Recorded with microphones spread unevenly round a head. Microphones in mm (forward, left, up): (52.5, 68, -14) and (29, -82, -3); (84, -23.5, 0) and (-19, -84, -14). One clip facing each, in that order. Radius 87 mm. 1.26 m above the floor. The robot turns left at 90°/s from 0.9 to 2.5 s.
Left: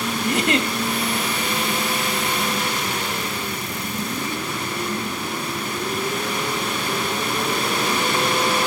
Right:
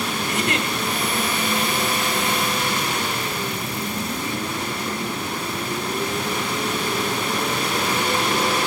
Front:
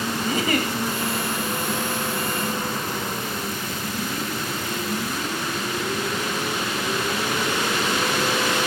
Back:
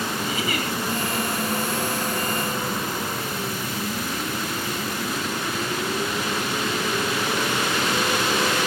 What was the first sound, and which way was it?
A giggle, 85° left.